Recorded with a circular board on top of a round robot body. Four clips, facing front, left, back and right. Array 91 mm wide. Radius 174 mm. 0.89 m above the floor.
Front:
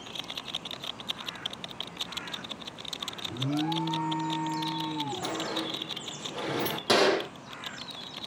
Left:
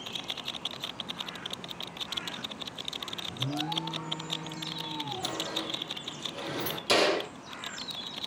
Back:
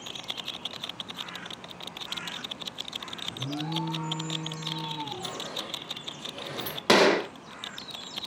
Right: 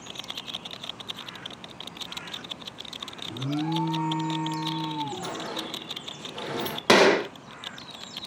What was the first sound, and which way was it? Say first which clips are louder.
An alarm: right 6 dB, front 5 dB; 65° right.